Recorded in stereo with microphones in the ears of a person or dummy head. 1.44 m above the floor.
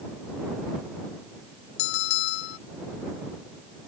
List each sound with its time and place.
1.8 s a bell: 65° left (ahead or behind)